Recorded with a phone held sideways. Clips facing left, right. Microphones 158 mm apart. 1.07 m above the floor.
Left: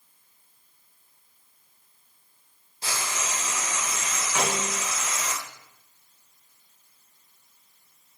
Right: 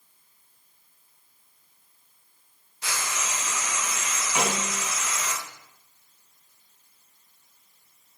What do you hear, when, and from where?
2.8 s frying: 30° left (ahead or behind), 0.6 m
4.3 s a snare drum: 15° right (ahead or behind), 2 m